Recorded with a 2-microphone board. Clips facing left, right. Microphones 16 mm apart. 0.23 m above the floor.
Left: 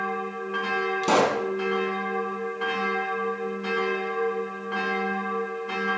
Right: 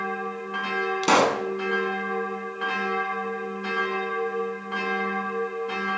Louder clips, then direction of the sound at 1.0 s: Right 2 dB; 30° right (ahead or behind).